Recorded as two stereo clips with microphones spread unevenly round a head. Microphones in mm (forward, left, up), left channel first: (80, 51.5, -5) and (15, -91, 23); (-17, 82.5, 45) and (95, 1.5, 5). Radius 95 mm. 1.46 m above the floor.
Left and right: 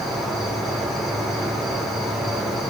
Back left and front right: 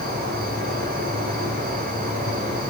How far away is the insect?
About 3.5 m.